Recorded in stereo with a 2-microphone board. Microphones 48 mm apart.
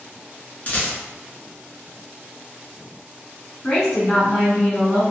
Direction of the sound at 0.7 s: 35° left (ahead or behind).